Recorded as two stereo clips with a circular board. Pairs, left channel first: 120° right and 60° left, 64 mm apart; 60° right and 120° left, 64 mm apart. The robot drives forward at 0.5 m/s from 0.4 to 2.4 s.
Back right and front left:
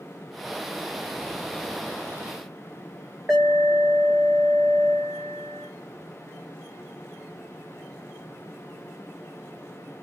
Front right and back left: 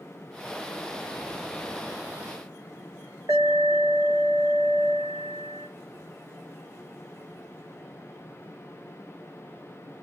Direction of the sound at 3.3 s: 145° left.